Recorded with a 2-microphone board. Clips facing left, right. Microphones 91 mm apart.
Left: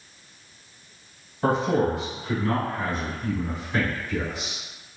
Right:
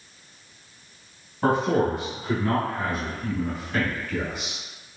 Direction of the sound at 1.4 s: 40° right (ahead or behind).